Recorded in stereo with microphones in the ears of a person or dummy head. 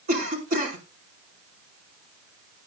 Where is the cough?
35° right (ahead or behind), 4.5 m.